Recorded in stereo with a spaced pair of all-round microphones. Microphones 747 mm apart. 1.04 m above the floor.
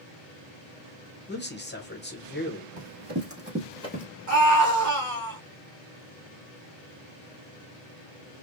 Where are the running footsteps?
40° right (ahead or behind), 1.5 m; by 4.0 s 20° left (ahead or behind), 1.1 m.